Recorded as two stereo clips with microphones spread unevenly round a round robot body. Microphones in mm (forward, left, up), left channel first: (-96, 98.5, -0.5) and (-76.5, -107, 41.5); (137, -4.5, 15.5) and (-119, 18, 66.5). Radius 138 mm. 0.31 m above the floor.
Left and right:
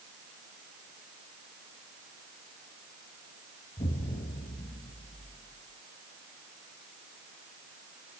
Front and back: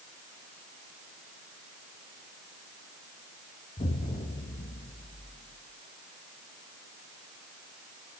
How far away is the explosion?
About 2 m.